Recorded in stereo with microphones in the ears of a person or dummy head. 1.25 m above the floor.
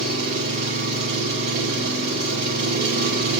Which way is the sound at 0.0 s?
65° right (ahead or behind).